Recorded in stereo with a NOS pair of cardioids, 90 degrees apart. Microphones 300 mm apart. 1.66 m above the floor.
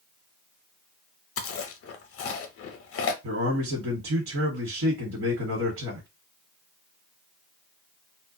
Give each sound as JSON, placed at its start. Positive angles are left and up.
{"t": 1.4, "sound": "chewing", "azimuth_deg": 50, "distance_m": 0.7}
{"t": 3.2, "sound": "a man speaking", "azimuth_deg": -45, "distance_m": 1.2}